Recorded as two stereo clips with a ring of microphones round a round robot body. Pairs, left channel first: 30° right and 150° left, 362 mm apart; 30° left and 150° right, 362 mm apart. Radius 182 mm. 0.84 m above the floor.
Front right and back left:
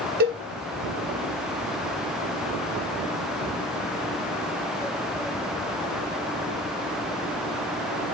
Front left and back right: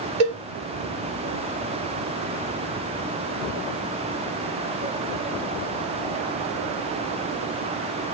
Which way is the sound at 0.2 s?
145° right.